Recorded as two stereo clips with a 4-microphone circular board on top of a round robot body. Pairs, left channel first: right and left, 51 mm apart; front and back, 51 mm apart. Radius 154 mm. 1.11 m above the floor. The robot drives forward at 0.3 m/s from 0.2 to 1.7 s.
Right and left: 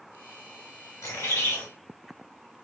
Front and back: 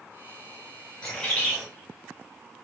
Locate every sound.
1.0 s a bird: 80° right, 1.3 m; by 1.6 s 90° right, 1.2 m